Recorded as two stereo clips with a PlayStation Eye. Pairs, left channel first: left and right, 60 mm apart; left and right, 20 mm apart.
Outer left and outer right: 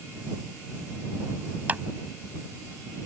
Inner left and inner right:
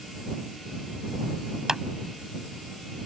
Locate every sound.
1.7 s a clap: 30° right (ahead or behind)